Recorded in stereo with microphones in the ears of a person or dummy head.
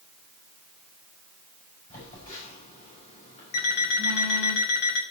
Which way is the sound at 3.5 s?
65° left (ahead or behind).